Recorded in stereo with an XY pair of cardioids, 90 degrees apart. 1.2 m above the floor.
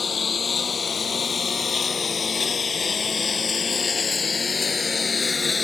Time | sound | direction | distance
0.0 | a lawn mower | 45° left | ?